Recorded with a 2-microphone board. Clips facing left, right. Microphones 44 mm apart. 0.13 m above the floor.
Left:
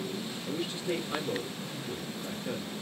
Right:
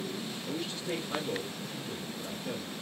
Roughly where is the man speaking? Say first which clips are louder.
Left 3 dB; centre.